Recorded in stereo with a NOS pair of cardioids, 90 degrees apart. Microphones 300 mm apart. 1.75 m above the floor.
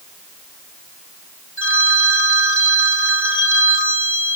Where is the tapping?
No tapping in this recording.